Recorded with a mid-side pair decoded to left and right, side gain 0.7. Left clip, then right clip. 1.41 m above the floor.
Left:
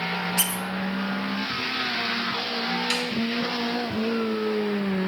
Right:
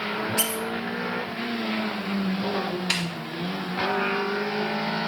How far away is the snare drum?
About 2.0 m.